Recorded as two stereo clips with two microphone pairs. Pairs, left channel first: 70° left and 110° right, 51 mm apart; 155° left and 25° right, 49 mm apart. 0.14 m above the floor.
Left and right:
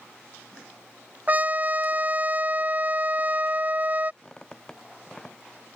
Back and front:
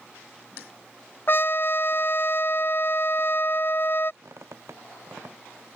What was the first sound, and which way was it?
A trumpet, 165° right.